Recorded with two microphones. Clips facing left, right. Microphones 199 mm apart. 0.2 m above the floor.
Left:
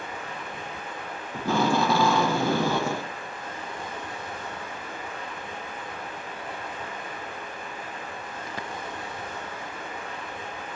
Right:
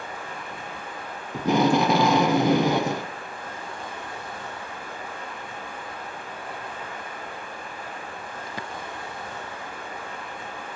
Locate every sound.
0.0 s running water: 20° left (ahead or behind), 4.5 m
1.3 s tape being pulled: 20° right (ahead or behind), 0.5 m